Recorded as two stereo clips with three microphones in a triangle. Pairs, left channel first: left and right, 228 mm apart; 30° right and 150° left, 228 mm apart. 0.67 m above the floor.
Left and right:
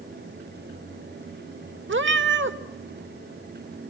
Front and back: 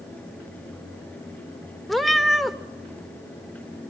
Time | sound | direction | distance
1.9 | a cat meowing | 120° right | 0.9 m